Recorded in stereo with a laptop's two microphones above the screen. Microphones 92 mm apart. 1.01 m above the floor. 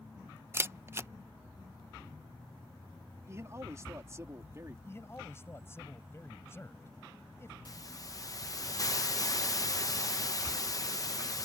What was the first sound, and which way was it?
A camera shutter, 25° right (ahead or behind).